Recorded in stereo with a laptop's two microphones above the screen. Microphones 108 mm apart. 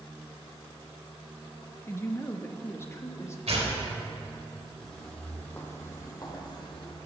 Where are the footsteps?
5° left (ahead or behind), 2 m; by 7.0 s 50° left (ahead or behind), 2 m.